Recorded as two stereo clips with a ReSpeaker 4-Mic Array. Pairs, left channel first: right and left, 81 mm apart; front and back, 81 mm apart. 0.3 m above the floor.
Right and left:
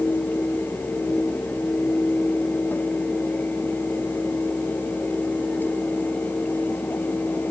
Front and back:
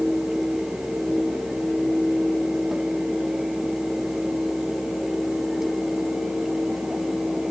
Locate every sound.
Only background noise.